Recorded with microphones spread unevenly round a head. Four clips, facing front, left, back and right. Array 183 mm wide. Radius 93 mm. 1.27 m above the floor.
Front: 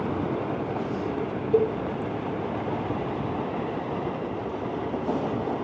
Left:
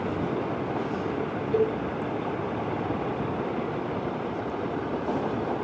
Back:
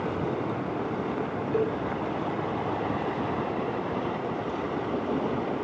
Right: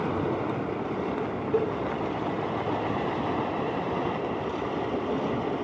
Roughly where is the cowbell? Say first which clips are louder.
Left 2 dB, front 5 dB; ahead.